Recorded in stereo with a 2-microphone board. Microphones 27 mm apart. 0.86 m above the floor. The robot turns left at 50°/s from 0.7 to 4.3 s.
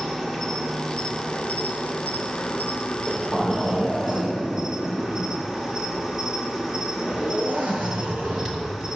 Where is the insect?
170° left, 2 m; by 9.0 s 10° right, 2 m.